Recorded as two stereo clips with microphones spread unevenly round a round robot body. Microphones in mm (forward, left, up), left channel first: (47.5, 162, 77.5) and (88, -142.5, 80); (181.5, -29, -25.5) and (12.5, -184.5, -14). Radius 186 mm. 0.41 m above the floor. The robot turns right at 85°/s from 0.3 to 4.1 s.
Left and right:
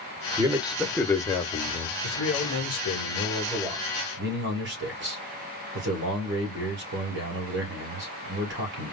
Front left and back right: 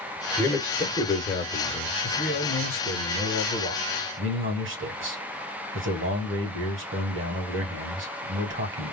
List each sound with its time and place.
0.4 s a man speaking: 30° right, 0.9 m; by 1.9 s 105° left, 0.9 m
2.0 s a man speaking: 55° left, 2.5 m; by 8.9 s 130° right, 2.5 m